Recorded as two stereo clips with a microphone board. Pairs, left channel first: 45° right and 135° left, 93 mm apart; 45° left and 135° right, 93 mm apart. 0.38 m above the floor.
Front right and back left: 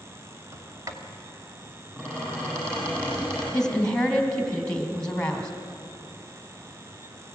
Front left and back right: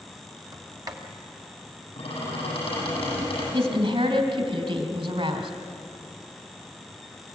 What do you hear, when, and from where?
0.5 s a sliding door: 175° right, 2 m
2.0 s a squeak: 65° left, 8 m
3.5 s a woman speaking: 125° right, 3 m